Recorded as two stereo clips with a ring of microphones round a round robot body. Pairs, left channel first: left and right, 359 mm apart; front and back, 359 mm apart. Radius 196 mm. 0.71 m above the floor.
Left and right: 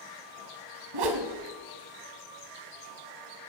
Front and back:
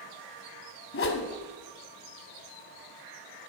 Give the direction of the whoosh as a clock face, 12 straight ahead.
2 o'clock.